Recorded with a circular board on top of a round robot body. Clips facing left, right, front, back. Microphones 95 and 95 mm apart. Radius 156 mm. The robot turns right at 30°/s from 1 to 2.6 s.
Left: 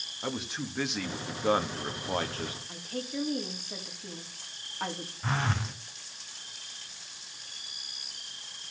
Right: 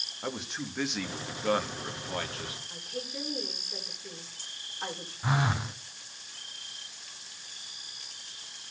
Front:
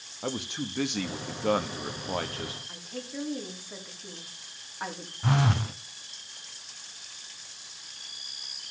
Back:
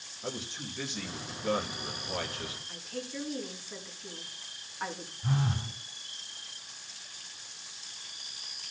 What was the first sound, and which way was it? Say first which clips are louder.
A man speaking: left 1 dB, front 6 dB; 5° left.